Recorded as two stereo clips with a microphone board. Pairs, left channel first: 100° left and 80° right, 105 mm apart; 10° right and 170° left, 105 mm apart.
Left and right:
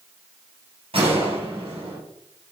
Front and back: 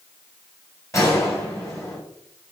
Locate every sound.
0.9 s a gunshot: 70° right, 3.5 m